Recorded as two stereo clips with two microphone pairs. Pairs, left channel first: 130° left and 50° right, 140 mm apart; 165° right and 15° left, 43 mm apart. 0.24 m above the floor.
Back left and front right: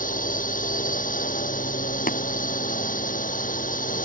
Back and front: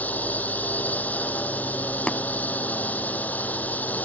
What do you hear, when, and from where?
0.0 s a drone: 145° left
2.1 s tapping: 125° left